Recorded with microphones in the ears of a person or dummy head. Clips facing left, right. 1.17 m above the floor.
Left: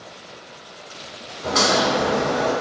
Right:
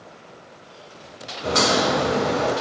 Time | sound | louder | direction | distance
1.4 | a crack | even | 15° right (ahead or behind) | 1.3 m